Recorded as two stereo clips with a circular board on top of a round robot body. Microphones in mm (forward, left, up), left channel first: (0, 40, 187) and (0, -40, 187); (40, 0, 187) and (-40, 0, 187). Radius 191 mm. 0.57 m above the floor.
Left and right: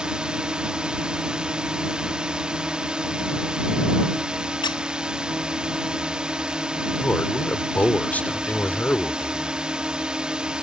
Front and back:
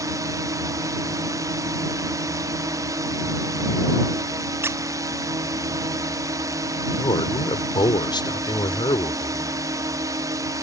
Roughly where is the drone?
Behind.